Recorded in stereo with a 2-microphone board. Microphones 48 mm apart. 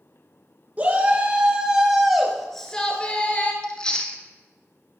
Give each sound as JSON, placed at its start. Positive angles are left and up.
{"t": 0.8, "sound": "a shout", "side_deg": -35, "distance_m": 2.0}
{"t": 3.6, "sound": "chewing", "side_deg": 20, "distance_m": 1.0}